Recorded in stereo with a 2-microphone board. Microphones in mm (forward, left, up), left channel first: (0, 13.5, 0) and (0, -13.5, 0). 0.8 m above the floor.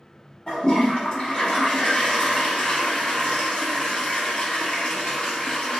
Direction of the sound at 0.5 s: 35° left (ahead or behind).